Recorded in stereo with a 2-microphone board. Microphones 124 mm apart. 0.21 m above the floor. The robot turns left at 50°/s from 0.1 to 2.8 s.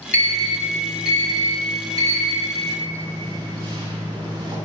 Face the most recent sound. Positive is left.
turn(degrees=-35)  # may be behind; listen again after turning